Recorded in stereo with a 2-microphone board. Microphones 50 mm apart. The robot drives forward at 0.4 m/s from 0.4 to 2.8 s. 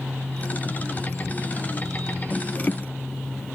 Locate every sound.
Only background noise.